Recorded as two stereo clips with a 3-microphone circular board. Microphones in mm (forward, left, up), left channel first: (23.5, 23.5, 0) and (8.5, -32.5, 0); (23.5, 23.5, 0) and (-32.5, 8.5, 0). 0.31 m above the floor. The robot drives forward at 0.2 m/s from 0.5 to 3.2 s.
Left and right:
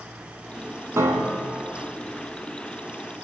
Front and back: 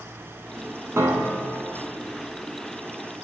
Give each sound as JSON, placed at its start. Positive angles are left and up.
{"t": 1.0, "sound": "a piano", "azimuth_deg": -130, "distance_m": 0.5}